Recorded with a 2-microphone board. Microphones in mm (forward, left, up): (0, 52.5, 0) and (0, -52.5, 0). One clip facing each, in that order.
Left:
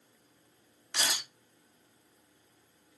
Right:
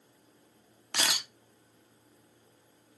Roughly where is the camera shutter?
Right.